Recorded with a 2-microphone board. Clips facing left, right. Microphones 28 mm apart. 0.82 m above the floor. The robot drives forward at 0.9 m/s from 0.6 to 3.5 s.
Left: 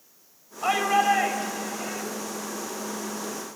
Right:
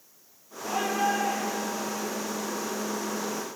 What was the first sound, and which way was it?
A shout, 80° left.